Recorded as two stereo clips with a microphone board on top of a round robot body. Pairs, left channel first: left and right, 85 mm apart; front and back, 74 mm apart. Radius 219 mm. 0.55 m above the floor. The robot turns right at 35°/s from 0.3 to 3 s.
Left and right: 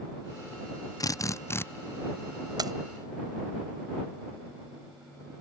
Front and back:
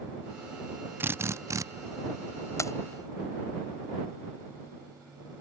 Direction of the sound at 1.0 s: 125° left.